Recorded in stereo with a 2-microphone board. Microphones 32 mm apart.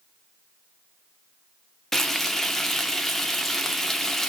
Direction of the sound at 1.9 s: 5° left (ahead or behind).